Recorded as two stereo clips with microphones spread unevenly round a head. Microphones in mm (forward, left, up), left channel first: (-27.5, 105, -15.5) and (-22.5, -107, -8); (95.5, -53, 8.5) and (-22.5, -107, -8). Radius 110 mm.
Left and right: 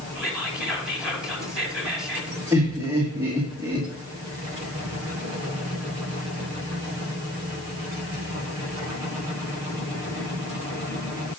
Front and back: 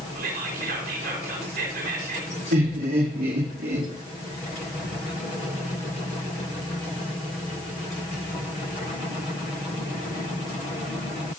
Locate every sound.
0.1 s whispering: 175° right, 3.5 m
2.5 s laughter: 165° right, 2.5 m